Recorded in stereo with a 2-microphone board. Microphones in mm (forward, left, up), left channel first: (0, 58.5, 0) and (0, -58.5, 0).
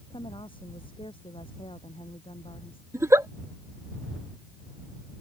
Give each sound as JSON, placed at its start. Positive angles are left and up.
{"t": 0.1, "sound": "a woman speaking", "side_deg": 45}
{"t": 2.9, "sound": "a giggle", "side_deg": -25}